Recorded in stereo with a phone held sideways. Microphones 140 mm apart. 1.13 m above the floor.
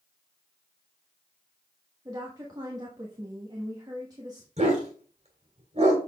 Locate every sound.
2.0 s a woman speaking: 25° right (ahead or behind), 1.3 m
4.6 s a dog barking: 50° right (ahead or behind), 2.5 m